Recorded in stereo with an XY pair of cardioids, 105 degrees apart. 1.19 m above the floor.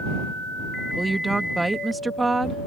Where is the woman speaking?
20° right.